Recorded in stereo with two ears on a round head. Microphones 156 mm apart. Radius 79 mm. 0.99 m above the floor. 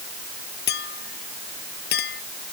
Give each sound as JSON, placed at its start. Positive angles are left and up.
{"t": 0.7, "sound": "a clink", "side_deg": 60}